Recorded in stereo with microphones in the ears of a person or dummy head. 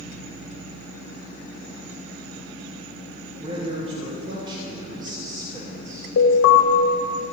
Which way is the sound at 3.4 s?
35° right (ahead or behind).